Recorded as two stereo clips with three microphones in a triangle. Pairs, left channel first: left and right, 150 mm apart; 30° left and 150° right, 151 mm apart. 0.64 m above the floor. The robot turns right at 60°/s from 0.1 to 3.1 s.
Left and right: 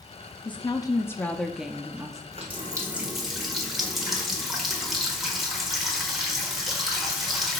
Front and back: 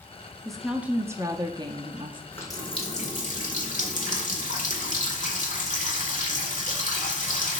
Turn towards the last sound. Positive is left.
turn(degrees=0)